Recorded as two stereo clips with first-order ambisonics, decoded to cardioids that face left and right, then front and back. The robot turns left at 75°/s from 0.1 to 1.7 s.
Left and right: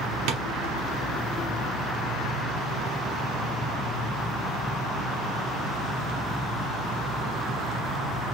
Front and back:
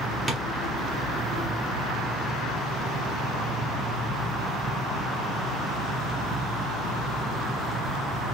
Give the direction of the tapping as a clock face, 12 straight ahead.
4 o'clock.